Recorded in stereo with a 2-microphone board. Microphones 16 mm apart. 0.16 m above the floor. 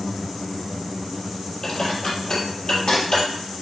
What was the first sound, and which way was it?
Dishes clattering, 50° left (ahead or behind).